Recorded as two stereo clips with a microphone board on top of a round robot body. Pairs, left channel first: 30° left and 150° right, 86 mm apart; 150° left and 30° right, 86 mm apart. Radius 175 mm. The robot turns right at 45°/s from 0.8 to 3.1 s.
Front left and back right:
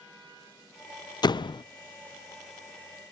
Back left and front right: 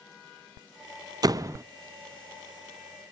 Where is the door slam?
5° left, 0.6 m; by 1.6 s 25° left, 0.6 m.